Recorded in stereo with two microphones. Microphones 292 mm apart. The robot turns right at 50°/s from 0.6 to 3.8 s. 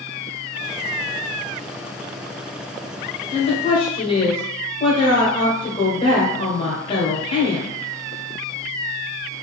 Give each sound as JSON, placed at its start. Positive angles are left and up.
{"t": 3.3, "sound": "a woman speaking", "side_deg": 20, "distance_m": 1.1}